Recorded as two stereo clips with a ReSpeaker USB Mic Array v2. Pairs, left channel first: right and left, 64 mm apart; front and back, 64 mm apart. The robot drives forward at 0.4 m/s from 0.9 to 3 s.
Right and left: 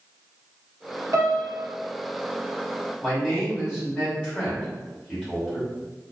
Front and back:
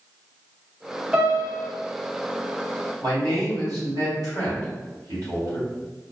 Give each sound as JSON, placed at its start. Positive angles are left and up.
{"t": 1.1, "sound": "a piano", "azimuth_deg": 105, "distance_m": 1.1}
{"t": 3.0, "sound": "a man speaking", "azimuth_deg": -165, "distance_m": 1.8}